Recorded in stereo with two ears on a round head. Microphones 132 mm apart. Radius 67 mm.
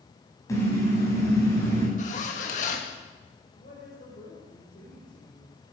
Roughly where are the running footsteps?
I don't hear running footsteps.